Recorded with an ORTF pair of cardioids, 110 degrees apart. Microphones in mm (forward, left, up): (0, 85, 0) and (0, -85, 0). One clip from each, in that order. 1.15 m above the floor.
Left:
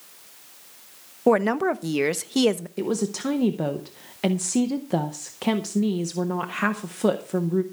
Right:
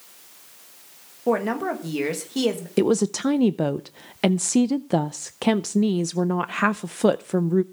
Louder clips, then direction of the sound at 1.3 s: Left 3 dB; 50° left.